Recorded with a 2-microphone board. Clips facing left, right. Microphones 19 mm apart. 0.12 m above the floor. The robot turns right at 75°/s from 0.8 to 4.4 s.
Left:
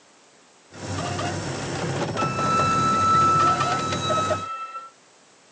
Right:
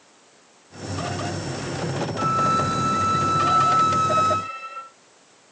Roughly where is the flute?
Left.